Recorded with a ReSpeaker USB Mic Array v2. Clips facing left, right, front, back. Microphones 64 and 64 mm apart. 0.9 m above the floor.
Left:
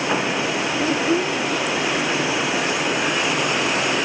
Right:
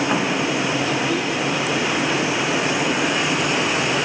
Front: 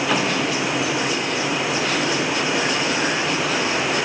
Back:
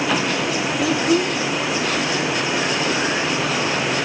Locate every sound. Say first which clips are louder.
0.8 s a child speaking: left 2 dB, back 4 dB; 150° left, 1.5 m